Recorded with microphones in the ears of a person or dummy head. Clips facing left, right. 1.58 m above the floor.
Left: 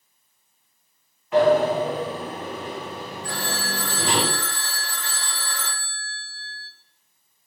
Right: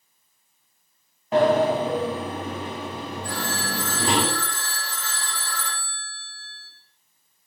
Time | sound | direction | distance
1.3 | a sliding door | 35° right (ahead or behind) | 2.5 m
3.2 | a phone ringing | 55° left (ahead or behind) | 1.7 m